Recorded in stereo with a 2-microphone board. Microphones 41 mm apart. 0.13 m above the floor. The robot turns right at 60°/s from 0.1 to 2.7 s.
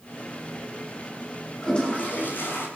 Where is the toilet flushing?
15° left, 9 m; by 2.7 s 80° left, 9 m.